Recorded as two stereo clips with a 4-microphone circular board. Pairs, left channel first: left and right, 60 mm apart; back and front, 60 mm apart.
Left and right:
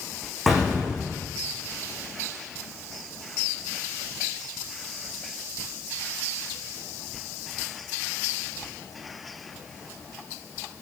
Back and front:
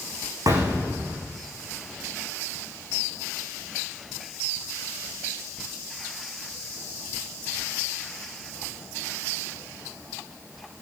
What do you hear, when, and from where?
0.5 s an explosion: straight ahead, 7 m